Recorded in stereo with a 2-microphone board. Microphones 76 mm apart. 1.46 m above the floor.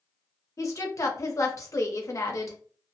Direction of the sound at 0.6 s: 40° left (ahead or behind).